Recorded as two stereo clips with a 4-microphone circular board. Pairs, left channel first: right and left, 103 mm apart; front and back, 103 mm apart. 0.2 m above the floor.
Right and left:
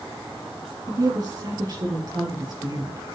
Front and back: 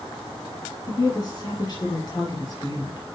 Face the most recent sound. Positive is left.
turn(degrees=45)